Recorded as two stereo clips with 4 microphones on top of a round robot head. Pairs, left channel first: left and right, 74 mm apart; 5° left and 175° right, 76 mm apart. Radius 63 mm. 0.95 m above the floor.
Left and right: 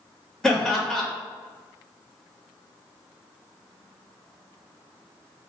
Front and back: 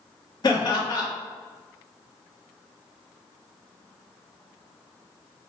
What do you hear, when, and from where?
0.4 s laughter: 10° left, 1.7 m